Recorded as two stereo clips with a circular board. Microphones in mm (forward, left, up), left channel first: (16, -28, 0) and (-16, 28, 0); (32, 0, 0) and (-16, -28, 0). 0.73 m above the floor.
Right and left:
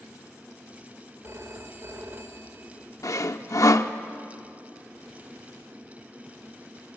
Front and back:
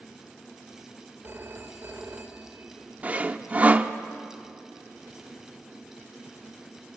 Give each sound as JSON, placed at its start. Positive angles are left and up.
{"t": 1.2, "sound": "a phone ringing", "azimuth_deg": 160, "distance_m": 1.9}
{"t": 3.0, "sound": "sawing", "azimuth_deg": -90, "distance_m": 0.8}